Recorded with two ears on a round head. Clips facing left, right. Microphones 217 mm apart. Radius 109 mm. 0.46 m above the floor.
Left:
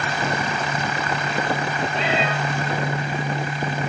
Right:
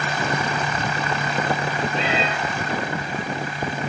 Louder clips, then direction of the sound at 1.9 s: Left 1 dB; 65° right (ahead or behind).